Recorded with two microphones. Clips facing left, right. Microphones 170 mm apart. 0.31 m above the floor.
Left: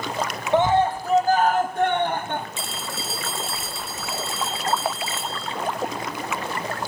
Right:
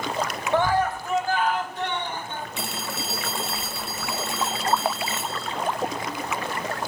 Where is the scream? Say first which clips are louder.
Left 4 dB; 20° left (ahead or behind), 1.9 m; by 2.5 s 60° left (ahead or behind), 3 m.